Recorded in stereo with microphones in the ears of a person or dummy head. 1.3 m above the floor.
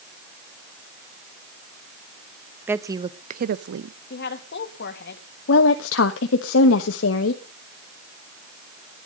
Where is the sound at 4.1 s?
55° left (ahead or behind), 2 m.